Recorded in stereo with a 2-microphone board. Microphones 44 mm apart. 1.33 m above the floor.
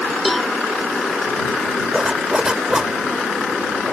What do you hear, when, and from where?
0.2 s a cowbell: centre (ahead or behind)
1.9 s a zipper: 15° right (ahead or behind)